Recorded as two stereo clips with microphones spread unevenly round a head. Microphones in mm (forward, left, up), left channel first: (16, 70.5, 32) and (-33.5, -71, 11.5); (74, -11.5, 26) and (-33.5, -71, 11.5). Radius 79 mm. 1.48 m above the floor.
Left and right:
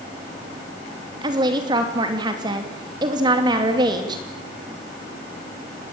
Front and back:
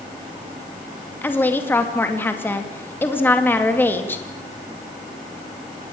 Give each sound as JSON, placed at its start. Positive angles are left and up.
{"t": 1.2, "sound": "a woman speaking", "azimuth_deg": -45, "distance_m": 2.5}